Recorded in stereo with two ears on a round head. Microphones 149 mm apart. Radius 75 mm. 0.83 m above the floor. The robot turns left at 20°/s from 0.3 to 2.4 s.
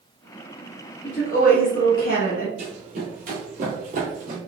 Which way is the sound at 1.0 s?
40° left (ahead or behind).